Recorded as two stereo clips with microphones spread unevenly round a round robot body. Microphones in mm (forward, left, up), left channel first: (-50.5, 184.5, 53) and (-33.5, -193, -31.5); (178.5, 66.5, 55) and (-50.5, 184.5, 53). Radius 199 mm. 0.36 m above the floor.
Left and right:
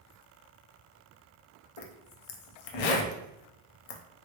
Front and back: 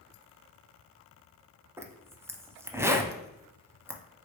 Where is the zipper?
70° left, 0.5 m.